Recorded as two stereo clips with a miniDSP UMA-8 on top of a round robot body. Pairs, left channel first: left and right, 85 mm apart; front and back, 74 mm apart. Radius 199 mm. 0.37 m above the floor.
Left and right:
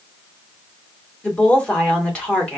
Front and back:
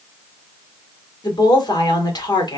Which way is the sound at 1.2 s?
15° left.